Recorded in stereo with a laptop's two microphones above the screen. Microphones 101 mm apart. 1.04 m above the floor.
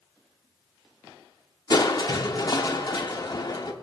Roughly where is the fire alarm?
No fire alarm in this recording.